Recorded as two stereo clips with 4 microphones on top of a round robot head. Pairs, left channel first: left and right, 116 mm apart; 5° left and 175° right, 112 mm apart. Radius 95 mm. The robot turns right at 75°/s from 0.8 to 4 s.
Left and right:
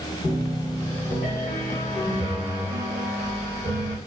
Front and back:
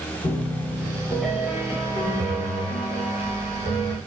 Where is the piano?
50° left, 1.2 m; by 4.0 s 75° right, 1.2 m.